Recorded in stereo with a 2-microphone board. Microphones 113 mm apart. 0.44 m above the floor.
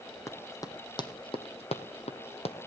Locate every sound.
0.3 s running footsteps: 25° left (ahead or behind), 1.7 m; by 2.6 s 60° left (ahead or behind), 1.3 m